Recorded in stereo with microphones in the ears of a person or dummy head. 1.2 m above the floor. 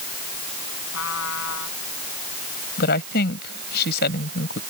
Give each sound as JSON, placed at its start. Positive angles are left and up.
{"t": 0.9, "sound": "a trumpet", "side_deg": 85}
{"t": 2.8, "sound": "a woman speaking", "side_deg": 55}